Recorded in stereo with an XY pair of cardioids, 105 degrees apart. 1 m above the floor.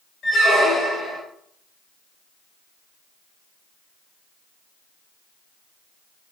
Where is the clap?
I don't hear a clap.